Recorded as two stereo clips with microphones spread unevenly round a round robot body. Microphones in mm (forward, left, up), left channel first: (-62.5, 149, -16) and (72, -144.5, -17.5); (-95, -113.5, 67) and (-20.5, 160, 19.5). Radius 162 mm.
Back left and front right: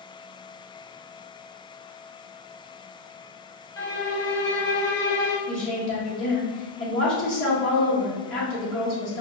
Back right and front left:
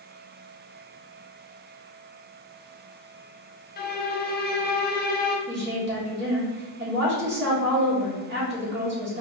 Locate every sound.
3.8 s a violin: 165° right, 0.6 m
5.5 s a woman speaking: 75° left, 1.7 m